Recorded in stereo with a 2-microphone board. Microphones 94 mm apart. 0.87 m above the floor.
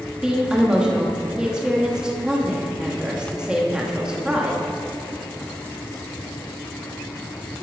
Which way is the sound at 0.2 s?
10° right (ahead or behind).